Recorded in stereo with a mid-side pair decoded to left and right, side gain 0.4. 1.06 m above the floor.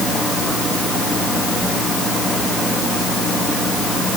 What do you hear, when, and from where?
Only background noise.